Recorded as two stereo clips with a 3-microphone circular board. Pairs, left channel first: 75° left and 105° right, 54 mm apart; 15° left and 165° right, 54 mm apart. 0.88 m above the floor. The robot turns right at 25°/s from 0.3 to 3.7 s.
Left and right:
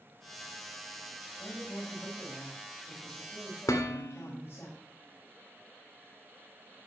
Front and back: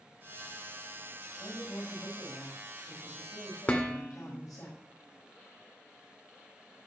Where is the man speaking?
30° right, 5.5 m; by 4.7 s 25° left, 5.5 m.